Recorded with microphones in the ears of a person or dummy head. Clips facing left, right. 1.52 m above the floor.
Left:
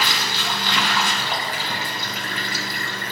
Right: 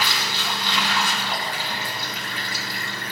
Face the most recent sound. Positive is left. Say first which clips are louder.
# left 2 dB
turn(degrees=60)  # may be behind; listen again after turning